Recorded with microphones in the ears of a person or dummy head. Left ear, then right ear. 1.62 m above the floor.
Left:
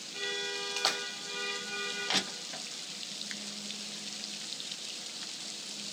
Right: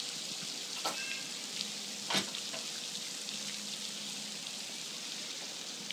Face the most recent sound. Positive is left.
turn(degrees=25)  # may be behind; listen again after turning